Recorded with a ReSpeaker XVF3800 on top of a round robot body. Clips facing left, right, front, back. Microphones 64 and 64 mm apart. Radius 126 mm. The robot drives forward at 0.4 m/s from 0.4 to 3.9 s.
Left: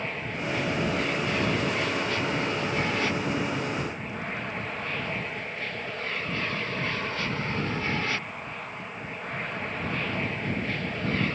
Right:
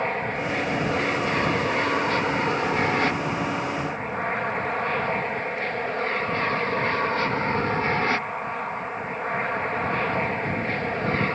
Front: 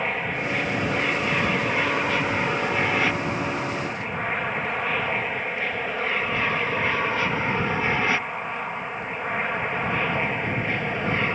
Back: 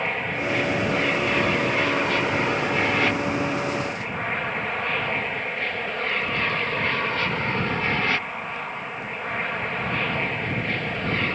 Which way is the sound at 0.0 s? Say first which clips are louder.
Right 6 dB, even; 85° right.